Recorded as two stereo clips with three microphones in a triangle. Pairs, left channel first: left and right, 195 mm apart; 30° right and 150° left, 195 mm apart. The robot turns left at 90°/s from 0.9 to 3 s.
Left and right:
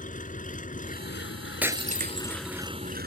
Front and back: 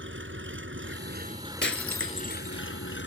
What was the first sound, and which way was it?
An engine running, 140° left.